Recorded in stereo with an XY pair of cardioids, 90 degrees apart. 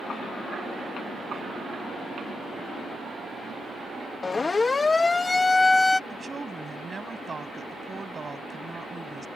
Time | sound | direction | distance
4.2 | a siren | 35° left | ?
6.1 | a woman speaking | 35° right | ?